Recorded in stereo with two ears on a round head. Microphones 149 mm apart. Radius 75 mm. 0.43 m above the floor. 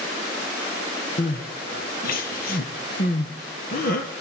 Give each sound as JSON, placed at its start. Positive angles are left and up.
{"t": 1.2, "sound": "crying", "side_deg": 60, "distance_m": 2.0}